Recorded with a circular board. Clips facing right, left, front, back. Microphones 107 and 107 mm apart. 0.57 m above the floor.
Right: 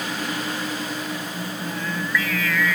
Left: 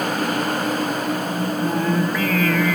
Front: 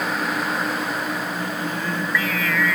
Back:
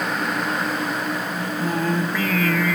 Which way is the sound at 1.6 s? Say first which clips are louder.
Left 9 dB, back 4 dB; 135° left.